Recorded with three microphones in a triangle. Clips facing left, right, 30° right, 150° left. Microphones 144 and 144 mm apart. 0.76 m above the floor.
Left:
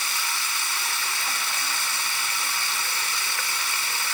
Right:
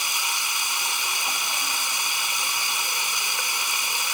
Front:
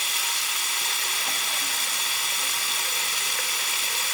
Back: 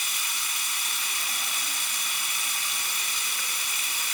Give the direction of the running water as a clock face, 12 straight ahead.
1 o'clock.